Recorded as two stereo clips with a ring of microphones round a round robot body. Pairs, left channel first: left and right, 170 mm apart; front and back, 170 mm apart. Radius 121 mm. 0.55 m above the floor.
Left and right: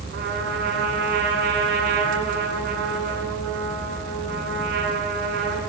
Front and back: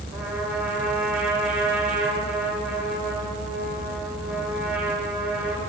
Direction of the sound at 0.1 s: 95° right.